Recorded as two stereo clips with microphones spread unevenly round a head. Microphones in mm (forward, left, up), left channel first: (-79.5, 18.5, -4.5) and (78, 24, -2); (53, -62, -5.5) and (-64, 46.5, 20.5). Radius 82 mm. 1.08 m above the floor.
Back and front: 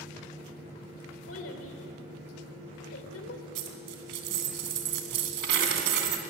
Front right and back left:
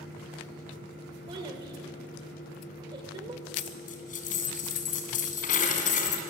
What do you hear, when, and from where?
0.0 s a fan: 70° right, 7.5 m
1.3 s a child speaking: 160° right, 2.5 m
3.5 s a dropped coin: 5° left, 2.5 m